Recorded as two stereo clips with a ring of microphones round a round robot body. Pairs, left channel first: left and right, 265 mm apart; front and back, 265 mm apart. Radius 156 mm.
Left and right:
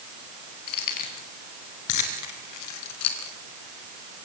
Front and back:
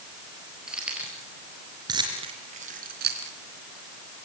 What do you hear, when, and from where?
0.7 s keys jangling: 90° left, 5 m; by 4.3 s 155° left, 2.5 m